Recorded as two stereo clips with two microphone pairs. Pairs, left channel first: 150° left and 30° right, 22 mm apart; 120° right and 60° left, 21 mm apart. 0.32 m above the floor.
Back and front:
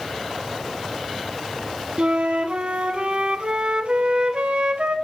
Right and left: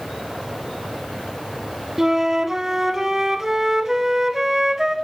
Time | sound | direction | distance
2.0 | a flute | straight ahead | 0.7 m